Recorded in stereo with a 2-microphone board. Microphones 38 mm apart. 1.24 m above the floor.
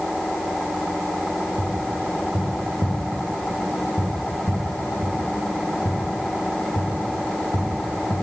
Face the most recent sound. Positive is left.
turn(degrees=50)  # may be behind; listen again after turning